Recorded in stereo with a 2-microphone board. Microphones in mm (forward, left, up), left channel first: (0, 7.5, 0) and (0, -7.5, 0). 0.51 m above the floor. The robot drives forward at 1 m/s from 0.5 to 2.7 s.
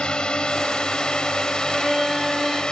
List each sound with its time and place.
0.0 s a drone: 60° left (ahead or behind); by 2.7 s 55° left (ahead or behind)
1.7 s a violin: 10° right (ahead or behind); by 2.6 s 5° right (ahead or behind)